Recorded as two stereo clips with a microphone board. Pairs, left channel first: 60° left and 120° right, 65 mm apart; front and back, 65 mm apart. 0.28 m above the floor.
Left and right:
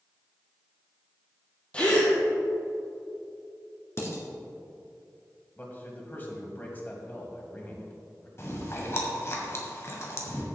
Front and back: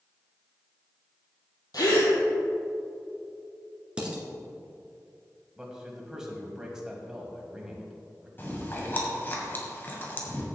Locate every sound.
1.7 s a gasp: 10° right, 2.5 m
4.0 s dishes clattering: 105° left, 2.5 m
5.6 s a man speaking: 105° left, 2.0 m
8.4 s chewing: 40° left, 1.8 m